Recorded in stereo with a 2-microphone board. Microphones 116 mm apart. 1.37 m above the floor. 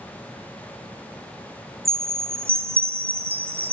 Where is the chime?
55° right (ahead or behind), 0.6 m.